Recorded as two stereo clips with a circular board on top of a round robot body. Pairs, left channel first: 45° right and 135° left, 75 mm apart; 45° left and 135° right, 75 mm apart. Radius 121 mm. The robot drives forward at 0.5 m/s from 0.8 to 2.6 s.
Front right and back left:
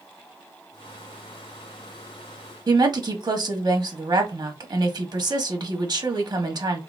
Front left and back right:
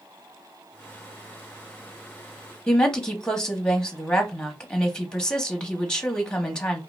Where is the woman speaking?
125° left, 1.1 m.